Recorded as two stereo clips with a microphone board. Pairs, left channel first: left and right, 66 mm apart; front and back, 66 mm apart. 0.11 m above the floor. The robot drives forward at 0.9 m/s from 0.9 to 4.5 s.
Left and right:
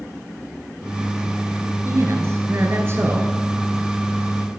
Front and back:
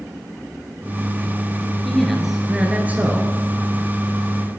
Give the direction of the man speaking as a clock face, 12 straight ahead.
3 o'clock.